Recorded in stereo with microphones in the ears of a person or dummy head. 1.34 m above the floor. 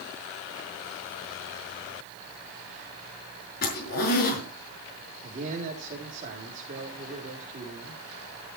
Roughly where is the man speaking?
Right.